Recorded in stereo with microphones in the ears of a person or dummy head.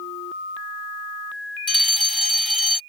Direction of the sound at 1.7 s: 5° left (ahead or behind).